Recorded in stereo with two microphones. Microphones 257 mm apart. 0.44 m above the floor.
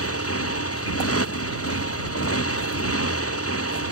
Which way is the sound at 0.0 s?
60° left (ahead or behind).